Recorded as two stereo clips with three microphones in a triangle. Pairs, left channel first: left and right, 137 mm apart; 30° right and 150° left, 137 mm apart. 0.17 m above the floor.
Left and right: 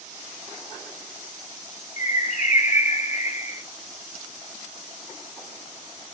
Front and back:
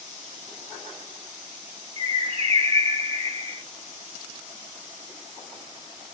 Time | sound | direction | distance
2.0 | a bird | 105° left | 1.3 m